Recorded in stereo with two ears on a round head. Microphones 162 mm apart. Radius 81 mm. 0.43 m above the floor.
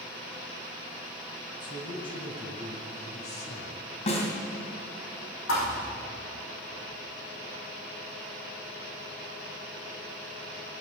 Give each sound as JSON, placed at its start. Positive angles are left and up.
{"t": 1.6, "sound": "a man speaking", "side_deg": 25, "distance_m": 3.0}
{"t": 4.1, "sound": "a snare drum", "side_deg": 40, "distance_m": 3.0}
{"t": 5.5, "sound": "a thud", "side_deg": 85, "distance_m": 5.0}